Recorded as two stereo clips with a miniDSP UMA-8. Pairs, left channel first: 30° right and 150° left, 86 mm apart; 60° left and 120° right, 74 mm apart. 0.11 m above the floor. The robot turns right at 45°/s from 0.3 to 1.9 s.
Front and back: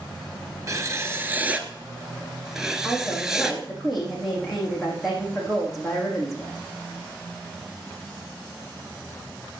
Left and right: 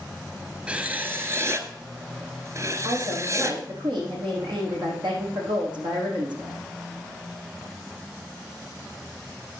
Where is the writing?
175° left, 1.2 m; by 3.6 s 130° right, 1.2 m.